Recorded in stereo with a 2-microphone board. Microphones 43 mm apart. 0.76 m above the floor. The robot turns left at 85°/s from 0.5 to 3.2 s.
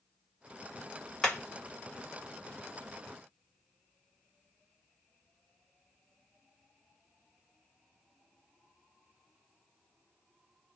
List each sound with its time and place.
1.2 s hammering: 10° left (ahead or behind), 1.9 m; by 1.4 s 20° left (ahead or behind), 1.9 m